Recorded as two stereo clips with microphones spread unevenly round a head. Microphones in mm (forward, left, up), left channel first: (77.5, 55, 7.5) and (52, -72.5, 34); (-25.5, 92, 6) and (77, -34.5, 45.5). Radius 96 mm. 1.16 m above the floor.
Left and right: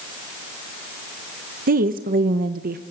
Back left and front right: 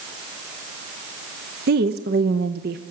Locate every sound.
1.7 s a woman speaking: 90° right, 1.0 m